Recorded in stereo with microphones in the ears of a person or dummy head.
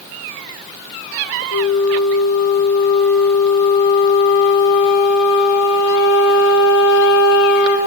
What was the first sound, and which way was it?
A flute, 80° left.